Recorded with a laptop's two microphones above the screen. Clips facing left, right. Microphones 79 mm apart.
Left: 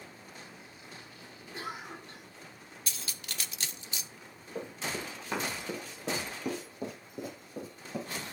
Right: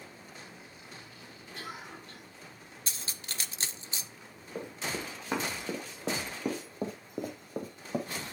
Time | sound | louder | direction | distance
1.5 | a cough | left 3 dB | 20° left (ahead or behind) | 2.5 m
2.9 | cutlery clinking | even | 30° right (ahead or behind) | 0.6 m
4.5 | running footsteps | even | 15° right (ahead or behind) | 2.5 m